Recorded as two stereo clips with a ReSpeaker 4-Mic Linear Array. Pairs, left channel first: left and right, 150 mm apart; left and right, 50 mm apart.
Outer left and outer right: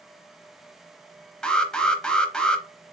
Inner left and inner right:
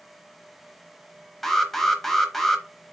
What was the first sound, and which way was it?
An alarm, 5° left (ahead or behind).